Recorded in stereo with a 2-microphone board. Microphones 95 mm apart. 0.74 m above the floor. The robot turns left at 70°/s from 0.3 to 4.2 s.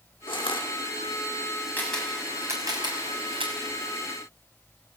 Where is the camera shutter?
20° left (ahead or behind), 6 m; by 3.5 s 75° right (ahead or behind), 6 m.